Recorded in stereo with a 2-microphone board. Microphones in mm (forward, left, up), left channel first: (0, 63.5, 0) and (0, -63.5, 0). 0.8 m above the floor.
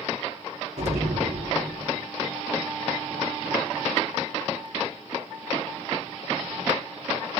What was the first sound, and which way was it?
An explosion, 60° right (ahead or behind).